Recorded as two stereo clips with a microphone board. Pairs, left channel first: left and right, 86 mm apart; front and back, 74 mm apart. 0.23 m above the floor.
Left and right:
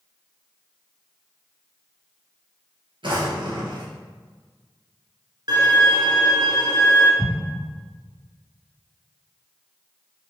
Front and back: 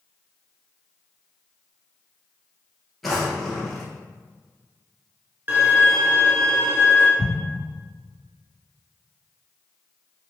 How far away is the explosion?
About 0.6 m.